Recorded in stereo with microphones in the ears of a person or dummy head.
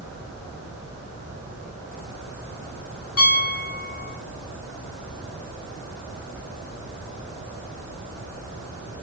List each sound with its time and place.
3.2 s a piano: 60° left (ahead or behind), 2.0 m